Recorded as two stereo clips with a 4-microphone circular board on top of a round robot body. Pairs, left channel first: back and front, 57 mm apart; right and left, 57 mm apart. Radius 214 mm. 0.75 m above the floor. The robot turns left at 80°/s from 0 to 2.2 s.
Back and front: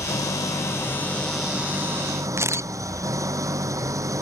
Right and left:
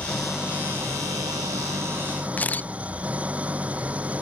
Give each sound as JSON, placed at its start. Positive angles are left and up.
{"t": 0.0, "sound": "an engine running", "azimuth_deg": -160}
{"t": 2.4, "sound": "a camera shutter", "azimuth_deg": -30}